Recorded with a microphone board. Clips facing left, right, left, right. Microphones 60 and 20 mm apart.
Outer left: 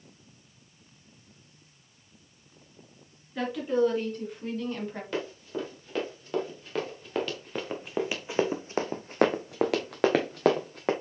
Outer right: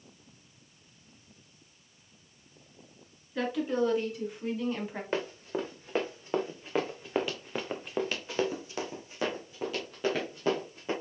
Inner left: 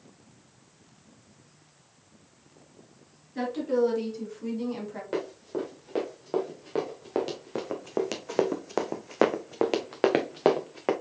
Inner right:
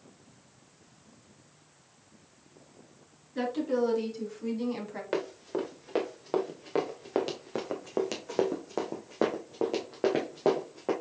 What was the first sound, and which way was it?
A woman speaking, centre (ahead or behind).